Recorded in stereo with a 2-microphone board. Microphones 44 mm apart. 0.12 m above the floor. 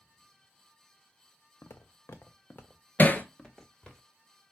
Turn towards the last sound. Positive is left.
turn(degrees=45)  # may be behind; listen again after turning